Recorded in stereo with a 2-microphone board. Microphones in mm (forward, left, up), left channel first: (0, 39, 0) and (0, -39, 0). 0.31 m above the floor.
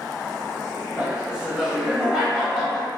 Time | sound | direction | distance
1.0 | laughter | 15° right (ahead or behind) | 0.9 m